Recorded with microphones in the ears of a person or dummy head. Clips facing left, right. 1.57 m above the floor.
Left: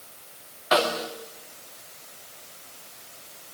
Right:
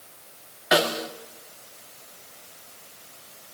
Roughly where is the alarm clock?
No alarm clock in this recording.